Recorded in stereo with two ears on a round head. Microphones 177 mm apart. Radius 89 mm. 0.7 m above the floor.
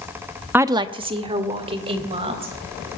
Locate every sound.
0.5 s a woman speaking: 10° right (ahead or behind), 0.5 m; by 2.5 s 30° right (ahead or behind), 3.5 m